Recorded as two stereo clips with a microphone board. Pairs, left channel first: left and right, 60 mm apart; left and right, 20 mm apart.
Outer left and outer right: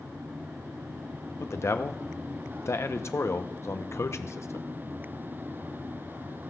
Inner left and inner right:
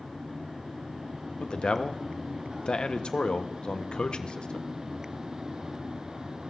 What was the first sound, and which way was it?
A man speaking, 50° left (ahead or behind).